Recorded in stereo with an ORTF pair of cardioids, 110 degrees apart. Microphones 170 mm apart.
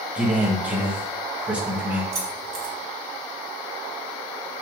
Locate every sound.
0.1 s a man speaking: 10° right, 1.2 m
2.1 s keys jangling: 40° right, 1.8 m